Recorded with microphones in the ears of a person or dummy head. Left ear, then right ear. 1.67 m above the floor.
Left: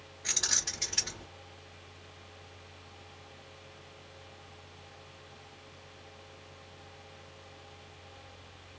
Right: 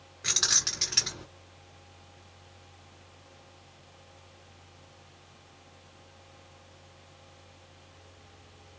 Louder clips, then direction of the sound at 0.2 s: Right 5 dB; 55° right (ahead or behind).